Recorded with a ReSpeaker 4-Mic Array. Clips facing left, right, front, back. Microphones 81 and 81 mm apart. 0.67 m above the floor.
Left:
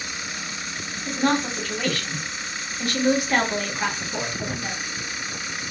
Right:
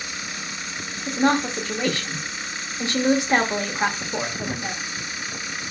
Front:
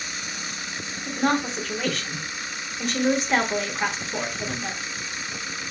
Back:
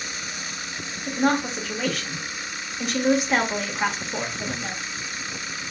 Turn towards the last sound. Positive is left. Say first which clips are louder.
# right 2 dB, back 1 dB
turn(degrees=-90)